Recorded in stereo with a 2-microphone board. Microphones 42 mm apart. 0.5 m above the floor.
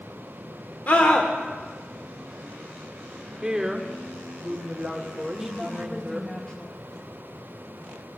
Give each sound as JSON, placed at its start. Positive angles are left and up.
{"t": 0.9, "sound": "a scream", "side_deg": 45, "distance_m": 1.0}
{"t": 3.4, "sound": "a woman speaking", "side_deg": -15, "distance_m": 1.0}
{"t": 5.4, "sound": "a woman speaking", "side_deg": 20, "distance_m": 1.3}